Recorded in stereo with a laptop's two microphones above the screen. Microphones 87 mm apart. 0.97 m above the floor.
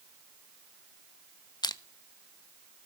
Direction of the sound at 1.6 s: 50° left (ahead or behind).